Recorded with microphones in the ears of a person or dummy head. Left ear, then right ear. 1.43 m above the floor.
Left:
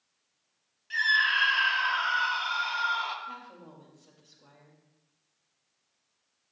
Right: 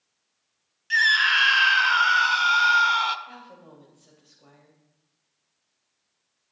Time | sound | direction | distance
0.9 | a scream | 40° right (ahead or behind) | 0.6 m
3.3 | a woman speaking | 25° right (ahead or behind) | 2.5 m